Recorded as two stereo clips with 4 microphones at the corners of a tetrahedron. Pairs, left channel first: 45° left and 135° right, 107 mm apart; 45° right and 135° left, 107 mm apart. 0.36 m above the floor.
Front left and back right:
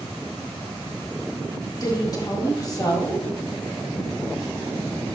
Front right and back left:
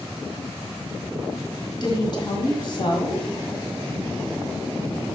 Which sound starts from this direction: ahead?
A woman speaking, at 1.8 s.